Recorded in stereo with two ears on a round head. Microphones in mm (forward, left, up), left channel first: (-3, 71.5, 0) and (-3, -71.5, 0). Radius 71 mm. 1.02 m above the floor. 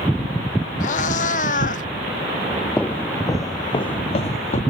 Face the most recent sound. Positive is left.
turn(degrees=45)  # may be behind; listen again after turning